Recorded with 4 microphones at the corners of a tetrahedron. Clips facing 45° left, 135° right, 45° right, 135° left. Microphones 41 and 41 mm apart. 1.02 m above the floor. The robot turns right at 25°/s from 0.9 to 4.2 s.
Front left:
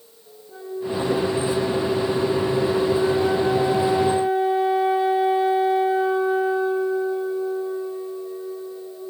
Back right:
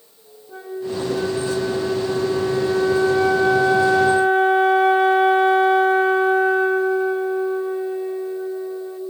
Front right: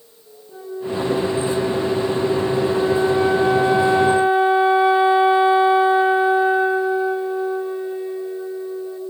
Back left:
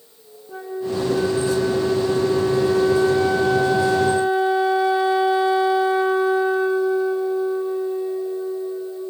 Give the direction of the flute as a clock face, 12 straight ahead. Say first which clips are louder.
Even, back left 1 dB; 6 o'clock.